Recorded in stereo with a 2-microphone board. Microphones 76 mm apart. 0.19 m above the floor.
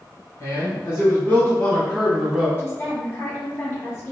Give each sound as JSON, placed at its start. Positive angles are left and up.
{"t": 0.4, "sound": "a man speaking", "side_deg": 40, "distance_m": 1.4}
{"t": 2.6, "sound": "a woman speaking", "side_deg": 30, "distance_m": 1.7}